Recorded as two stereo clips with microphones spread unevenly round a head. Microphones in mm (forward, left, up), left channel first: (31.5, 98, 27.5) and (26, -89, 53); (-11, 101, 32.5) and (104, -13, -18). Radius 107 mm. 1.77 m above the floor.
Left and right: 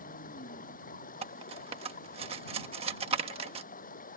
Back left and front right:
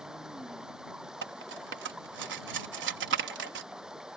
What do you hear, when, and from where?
0.0 s running water: 45° left
1.2 s cutlery clinking: 40° right